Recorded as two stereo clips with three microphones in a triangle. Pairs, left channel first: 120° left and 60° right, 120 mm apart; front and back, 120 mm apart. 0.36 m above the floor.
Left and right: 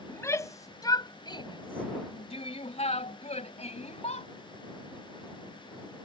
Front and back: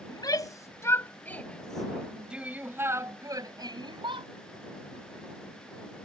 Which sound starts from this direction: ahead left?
A shout, at 0.1 s.